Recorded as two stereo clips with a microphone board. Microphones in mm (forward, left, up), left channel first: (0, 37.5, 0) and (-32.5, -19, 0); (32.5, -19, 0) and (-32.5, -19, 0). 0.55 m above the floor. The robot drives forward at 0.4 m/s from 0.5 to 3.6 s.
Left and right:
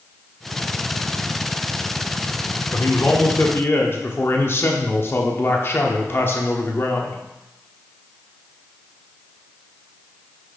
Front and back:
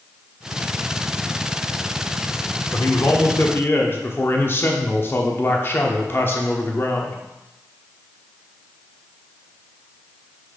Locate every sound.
2.7 s a man speaking: 20° left, 1.1 m; by 7.2 s 30° left, 0.9 m